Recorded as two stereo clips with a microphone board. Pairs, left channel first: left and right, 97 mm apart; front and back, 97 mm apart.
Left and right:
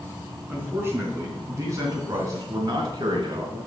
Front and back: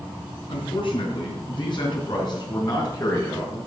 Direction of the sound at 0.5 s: 20° right.